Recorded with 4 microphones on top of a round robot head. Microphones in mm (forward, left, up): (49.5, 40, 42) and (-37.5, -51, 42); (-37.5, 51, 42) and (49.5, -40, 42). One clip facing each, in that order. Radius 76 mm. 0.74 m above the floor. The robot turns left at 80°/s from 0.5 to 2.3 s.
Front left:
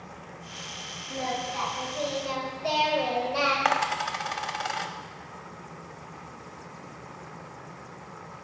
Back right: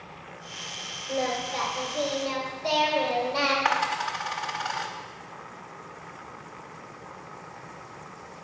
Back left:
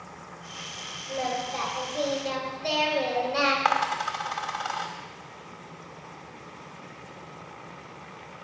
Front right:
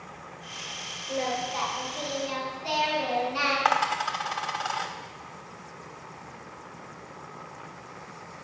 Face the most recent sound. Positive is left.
turn(degrees=40)